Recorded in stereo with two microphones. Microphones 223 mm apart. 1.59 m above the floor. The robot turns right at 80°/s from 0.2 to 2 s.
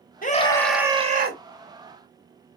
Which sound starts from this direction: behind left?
A scream, at 0.2 s.